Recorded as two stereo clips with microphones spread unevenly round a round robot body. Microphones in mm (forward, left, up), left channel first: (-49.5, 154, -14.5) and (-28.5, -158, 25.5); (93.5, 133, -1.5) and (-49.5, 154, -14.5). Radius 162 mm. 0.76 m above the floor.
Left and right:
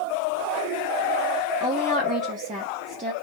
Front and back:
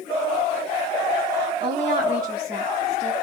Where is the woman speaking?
150° right, 0.7 m.